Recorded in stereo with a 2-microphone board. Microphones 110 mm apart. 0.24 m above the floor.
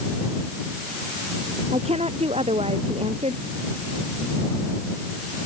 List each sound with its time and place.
1.7 s a woman speaking: 70° right (ahead or behind)